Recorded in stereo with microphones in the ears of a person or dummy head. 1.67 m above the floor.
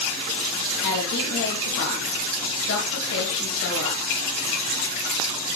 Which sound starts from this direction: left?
A woman speaking, at 0.8 s.